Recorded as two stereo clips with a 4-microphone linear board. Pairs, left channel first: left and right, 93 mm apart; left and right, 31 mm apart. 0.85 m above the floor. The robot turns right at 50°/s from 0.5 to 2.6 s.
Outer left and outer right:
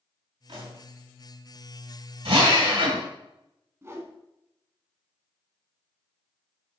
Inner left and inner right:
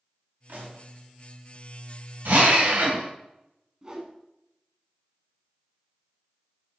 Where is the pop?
75° right (ahead or behind), 3 m.